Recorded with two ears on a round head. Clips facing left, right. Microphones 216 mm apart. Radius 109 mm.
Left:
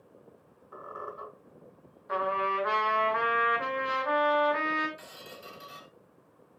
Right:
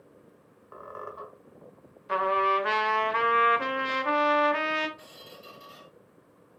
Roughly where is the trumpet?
Right.